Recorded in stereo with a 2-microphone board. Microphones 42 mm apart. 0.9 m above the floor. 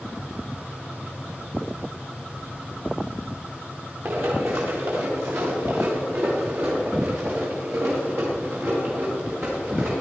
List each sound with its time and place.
4.0 s running footsteps: 75° right (ahead or behind), 3.5 m; by 9.9 s 50° right (ahead or behind), 5.5 m